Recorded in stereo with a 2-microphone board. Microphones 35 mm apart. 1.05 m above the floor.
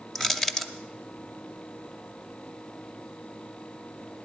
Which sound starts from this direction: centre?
Crushing, at 0.1 s.